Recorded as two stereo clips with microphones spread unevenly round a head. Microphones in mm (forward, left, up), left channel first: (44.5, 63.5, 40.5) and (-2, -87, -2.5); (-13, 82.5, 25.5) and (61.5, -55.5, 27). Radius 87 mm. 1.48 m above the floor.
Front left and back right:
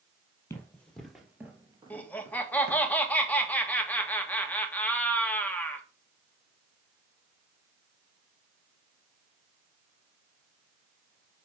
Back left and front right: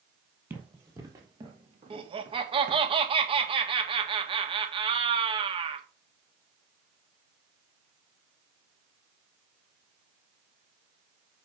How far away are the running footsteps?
About 2.5 m.